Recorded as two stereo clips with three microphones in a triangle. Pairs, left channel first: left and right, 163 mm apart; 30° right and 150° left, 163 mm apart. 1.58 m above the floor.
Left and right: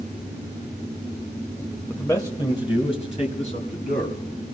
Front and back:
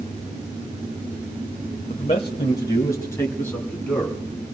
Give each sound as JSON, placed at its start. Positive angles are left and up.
{"t": 1.9, "sound": "a man speaking", "azimuth_deg": 10, "distance_m": 1.1}